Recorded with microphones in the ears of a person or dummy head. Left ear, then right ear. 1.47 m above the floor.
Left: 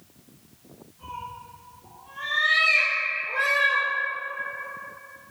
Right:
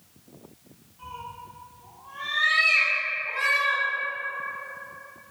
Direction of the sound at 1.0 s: 40° right (ahead or behind).